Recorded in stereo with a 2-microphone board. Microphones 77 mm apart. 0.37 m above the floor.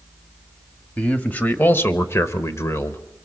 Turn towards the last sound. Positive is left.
turn(degrees=35)  # may be behind; listen again after turning